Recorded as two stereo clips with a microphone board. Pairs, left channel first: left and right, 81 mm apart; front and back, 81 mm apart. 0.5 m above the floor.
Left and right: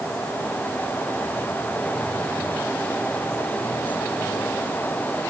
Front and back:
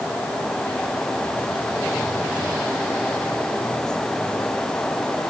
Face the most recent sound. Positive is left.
No sound to turn to.